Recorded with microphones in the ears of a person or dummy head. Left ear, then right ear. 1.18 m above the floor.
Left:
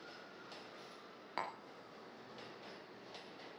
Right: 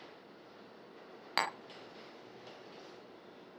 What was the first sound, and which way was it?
Tapping, 55° right (ahead or behind).